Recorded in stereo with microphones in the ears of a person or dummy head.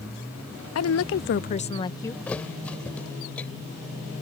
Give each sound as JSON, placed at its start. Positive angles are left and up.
{"t": 0.8, "sound": "a woman speaking", "side_deg": 85}
{"t": 2.3, "sound": "a thud", "side_deg": 10}